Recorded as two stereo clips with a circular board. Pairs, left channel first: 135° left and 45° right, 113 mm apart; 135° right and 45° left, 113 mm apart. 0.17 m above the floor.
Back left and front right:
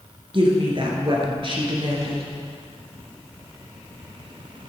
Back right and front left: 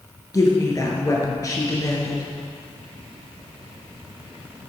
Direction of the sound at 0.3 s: 80° right.